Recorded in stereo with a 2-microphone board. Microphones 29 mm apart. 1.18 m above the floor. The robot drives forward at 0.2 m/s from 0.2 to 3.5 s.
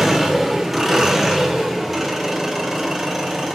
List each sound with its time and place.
0.0 s an engine running: 10° right (ahead or behind), 0.9 m; by 3.6 s 5° right (ahead or behind), 1.4 m